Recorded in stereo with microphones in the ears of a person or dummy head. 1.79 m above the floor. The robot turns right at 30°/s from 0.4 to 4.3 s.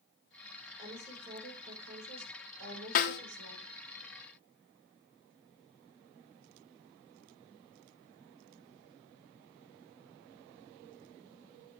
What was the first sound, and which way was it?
A woman speaking, 155° right.